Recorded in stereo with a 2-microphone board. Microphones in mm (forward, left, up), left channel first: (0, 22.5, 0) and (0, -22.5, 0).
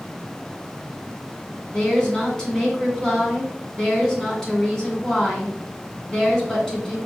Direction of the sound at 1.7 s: 10° left (ahead or behind).